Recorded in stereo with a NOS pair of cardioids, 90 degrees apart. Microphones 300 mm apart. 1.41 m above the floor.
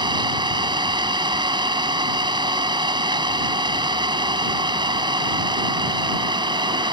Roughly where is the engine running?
Ahead.